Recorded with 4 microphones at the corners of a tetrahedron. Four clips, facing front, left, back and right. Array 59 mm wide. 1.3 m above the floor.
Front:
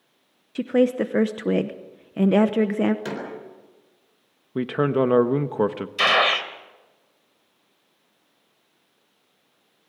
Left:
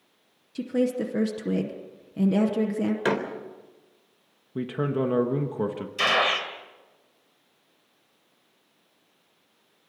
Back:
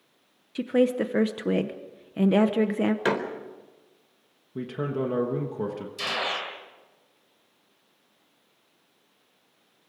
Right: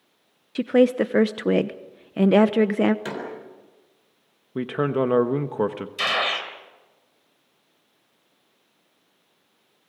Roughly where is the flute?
No flute in this recording.